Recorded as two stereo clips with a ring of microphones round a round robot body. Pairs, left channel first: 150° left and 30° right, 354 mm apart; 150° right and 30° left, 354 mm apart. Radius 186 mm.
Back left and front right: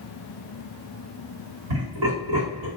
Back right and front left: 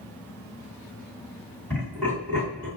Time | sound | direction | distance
1.7 | laughter | 60° right | 1.9 m